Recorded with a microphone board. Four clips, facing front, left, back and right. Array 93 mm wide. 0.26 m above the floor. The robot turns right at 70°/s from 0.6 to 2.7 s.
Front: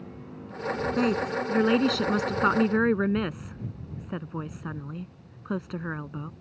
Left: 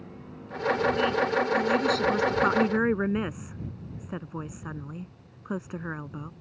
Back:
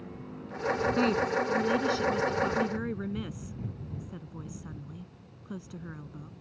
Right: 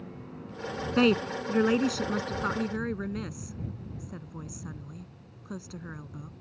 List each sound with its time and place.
1.0 s a woman speaking: 85° right; by 6.3 s 35° left